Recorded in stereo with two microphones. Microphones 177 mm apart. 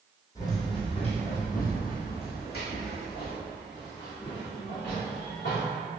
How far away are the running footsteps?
About 1.3 m.